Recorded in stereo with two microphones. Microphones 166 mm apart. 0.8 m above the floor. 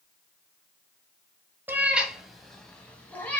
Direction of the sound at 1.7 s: 10° right (ahead or behind).